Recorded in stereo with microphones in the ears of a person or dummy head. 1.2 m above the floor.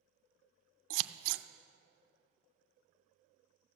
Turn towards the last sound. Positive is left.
turn(degrees=-80)